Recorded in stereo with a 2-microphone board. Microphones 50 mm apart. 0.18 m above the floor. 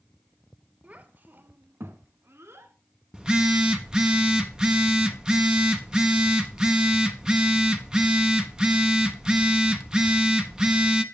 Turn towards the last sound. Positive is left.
turn(degrees=-15)  # may be behind; listen again after turning